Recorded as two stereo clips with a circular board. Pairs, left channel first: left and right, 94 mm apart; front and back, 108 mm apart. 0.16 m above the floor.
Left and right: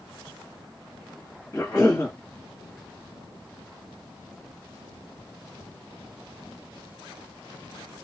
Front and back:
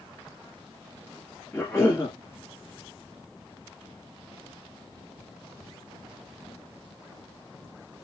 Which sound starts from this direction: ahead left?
A cough, at 1.5 s.